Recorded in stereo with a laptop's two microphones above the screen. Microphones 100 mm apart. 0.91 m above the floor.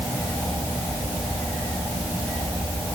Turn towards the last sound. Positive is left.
No sound to turn to.